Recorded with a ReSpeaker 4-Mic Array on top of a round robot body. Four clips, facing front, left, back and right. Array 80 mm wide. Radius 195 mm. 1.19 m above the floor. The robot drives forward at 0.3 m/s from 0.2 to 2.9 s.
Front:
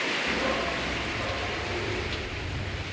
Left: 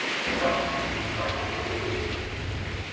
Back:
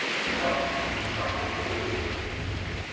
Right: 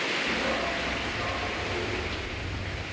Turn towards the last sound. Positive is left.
turn(degrees=155)